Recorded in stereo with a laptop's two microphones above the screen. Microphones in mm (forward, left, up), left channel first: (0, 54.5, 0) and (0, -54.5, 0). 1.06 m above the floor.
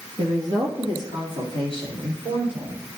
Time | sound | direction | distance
0.2 | a woman speaking | 75° right (ahead or behind) | 1.3 m